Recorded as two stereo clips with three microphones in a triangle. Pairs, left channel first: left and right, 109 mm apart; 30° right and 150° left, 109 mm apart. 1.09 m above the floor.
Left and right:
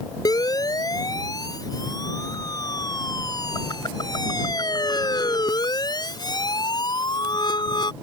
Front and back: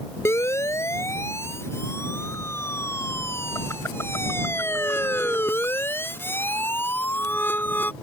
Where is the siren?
35° left; by 7.9 s 40° left.